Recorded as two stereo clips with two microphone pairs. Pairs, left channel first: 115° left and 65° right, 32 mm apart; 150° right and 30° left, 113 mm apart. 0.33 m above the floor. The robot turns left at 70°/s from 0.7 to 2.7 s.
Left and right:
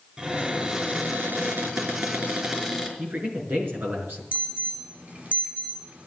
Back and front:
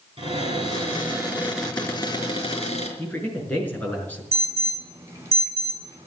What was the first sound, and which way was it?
A cupboard door, 5° left.